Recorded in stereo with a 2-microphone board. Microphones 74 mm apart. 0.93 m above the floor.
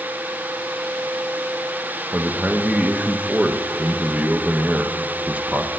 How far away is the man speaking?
About 0.7 m.